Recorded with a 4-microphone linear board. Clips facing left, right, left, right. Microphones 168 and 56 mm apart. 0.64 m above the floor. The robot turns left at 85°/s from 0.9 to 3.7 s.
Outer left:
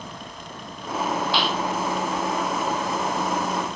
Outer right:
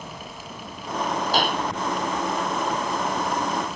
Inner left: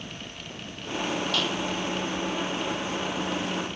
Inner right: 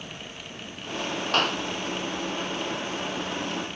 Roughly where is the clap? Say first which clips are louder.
Outer right 1 dB, inner right 3 dB; right.